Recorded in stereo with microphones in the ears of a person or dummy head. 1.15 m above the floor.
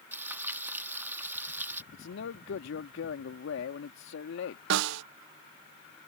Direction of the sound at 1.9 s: 75° left (ahead or behind).